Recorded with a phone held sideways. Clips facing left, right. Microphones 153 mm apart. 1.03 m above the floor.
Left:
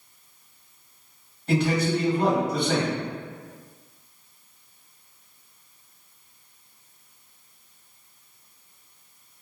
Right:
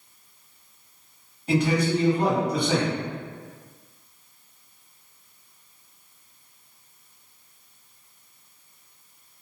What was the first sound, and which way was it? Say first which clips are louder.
A man speaking: right 1 dB; 15° right (ahead or behind).